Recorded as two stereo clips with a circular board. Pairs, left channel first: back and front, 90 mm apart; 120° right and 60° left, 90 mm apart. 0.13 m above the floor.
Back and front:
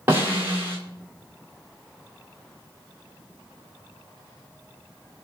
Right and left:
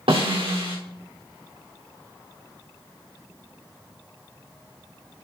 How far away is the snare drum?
About 4.5 m.